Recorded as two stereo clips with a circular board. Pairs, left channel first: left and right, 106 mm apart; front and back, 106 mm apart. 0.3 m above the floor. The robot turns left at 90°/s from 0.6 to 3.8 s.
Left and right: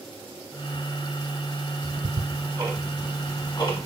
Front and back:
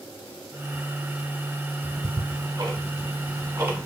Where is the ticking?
85° right, 0.8 m; by 3.9 s 105° left, 0.8 m.